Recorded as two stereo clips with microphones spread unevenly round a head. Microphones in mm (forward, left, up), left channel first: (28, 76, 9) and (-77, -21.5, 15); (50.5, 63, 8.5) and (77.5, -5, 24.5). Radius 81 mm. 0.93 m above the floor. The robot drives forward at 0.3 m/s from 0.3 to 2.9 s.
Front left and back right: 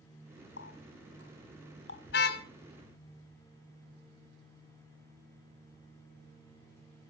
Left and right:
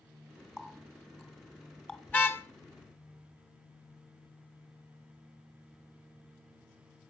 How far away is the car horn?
About 2.5 m.